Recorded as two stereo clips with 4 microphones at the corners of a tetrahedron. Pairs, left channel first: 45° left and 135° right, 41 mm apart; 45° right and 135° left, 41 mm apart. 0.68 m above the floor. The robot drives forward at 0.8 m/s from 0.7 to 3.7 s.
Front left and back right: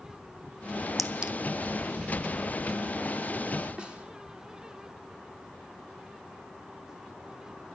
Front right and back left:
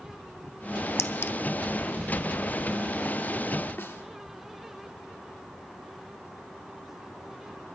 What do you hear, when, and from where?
1.0 s a clink: 50° right, 0.6 m; by 1.3 s 75° right, 0.5 m
3.8 s a snare drum: 75° right, 1.3 m